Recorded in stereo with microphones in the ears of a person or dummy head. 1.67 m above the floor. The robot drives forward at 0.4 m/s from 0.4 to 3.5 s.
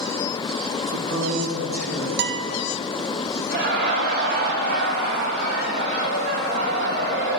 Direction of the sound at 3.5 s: 55° right (ahead or behind).